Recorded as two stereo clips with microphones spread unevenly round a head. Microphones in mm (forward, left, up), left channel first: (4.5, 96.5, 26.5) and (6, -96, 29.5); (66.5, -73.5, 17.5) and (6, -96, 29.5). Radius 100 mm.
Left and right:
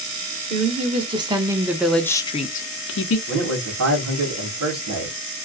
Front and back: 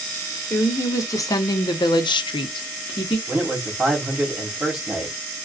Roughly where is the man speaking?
Right.